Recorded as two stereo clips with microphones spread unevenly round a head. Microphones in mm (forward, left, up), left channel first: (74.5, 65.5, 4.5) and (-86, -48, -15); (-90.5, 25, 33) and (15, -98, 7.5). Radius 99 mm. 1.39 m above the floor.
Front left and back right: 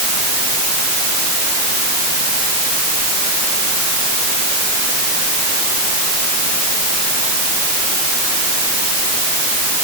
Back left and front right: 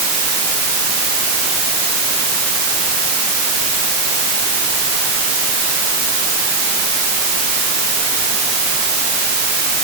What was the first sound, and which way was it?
Only background noise.